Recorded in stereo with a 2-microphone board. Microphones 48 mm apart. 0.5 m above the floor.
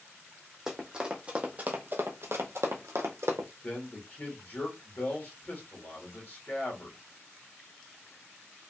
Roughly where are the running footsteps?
Centre.